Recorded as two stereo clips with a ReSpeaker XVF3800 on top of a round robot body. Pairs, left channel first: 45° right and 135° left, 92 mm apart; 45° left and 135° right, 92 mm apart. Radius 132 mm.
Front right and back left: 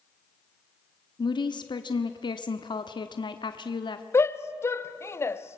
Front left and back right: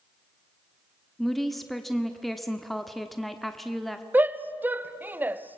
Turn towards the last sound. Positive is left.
turn(degrees=-80)